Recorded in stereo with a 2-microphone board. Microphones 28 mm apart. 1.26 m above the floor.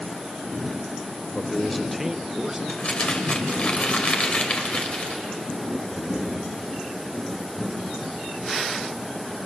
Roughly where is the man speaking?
Left.